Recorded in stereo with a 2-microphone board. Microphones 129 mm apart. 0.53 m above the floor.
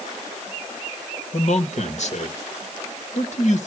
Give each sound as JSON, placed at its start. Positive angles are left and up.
{"t": 1.3, "sound": "a man speaking", "side_deg": 60, "distance_m": 1.6}